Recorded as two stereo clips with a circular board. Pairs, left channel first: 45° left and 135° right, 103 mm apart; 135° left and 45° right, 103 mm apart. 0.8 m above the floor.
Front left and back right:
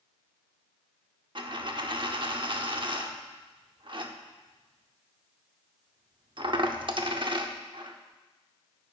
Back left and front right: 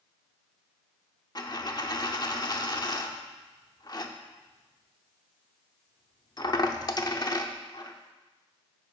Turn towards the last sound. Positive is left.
turn(degrees=-175)